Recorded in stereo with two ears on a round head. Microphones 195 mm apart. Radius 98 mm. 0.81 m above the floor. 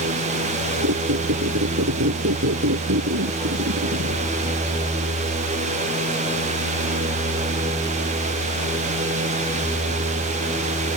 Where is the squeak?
60° right (ahead or behind).